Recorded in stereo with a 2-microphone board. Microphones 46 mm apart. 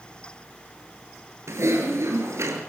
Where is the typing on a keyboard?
75° right (ahead or behind), 4.5 m.